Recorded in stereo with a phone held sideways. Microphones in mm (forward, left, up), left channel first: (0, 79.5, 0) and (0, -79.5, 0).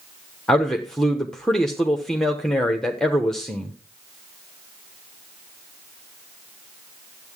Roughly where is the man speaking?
Centre.